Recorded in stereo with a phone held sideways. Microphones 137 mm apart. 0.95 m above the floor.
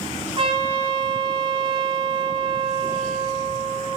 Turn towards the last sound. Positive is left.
turn(degrees=-40)  # may be behind; listen again after turning